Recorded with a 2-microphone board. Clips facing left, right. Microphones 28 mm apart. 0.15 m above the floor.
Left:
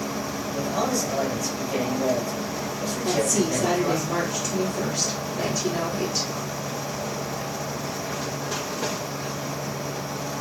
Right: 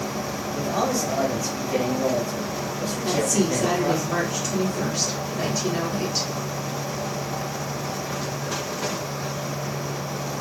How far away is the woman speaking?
About 1.9 m.